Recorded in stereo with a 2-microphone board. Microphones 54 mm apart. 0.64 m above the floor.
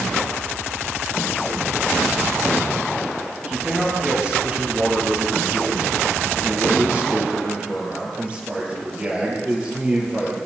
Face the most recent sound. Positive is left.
turn(degrees=-25)  # may be behind; listen again after turning